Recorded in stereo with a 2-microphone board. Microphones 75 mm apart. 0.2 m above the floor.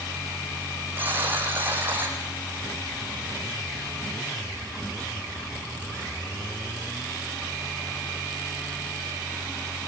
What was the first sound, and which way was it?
A buzzer, 25° right (ahead or behind).